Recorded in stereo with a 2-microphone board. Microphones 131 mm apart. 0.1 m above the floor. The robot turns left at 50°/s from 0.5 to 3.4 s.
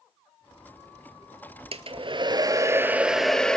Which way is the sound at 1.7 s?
100° right.